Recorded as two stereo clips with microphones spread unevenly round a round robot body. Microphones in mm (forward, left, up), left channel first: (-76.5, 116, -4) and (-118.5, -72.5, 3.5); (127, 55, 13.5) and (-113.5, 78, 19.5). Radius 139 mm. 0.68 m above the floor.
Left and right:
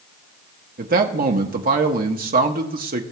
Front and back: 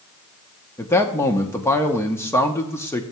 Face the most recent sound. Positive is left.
turn(degrees=-80)